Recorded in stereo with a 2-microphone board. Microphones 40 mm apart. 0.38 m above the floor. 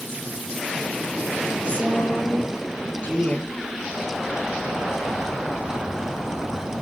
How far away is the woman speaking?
About 7.5 m.